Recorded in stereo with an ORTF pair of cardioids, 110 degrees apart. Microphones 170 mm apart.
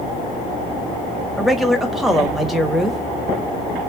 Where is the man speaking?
Straight ahead, 1.3 m.